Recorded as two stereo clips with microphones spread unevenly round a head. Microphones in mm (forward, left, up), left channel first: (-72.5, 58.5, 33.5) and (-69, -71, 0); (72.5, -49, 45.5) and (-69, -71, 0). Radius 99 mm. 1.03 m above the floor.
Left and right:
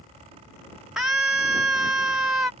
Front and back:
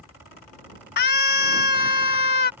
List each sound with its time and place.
1.0 s a scream: 5° right